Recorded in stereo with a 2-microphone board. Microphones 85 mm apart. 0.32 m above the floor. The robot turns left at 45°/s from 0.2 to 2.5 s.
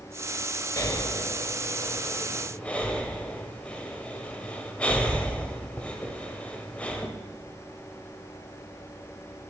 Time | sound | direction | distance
0.8 | breathing | 40° left (ahead or behind) | 0.6 m